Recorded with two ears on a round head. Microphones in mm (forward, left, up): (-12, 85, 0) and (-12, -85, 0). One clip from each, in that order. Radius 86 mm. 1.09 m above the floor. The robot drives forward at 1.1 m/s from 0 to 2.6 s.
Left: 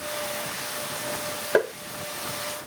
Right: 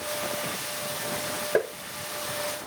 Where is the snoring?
I don't hear snoring.